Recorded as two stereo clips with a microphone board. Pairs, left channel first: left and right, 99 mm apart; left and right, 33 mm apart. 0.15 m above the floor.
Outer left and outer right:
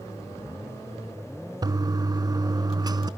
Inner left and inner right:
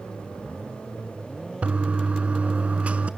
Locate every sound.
1.6 s a toilet flushing: 40° right (ahead or behind), 0.5 m